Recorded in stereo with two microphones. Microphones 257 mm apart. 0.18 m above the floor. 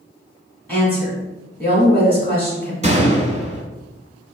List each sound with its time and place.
0.7 s a woman speaking: 5° left (ahead or behind), 1.3 m
2.8 s a gunshot: 30° right (ahead or behind), 0.8 m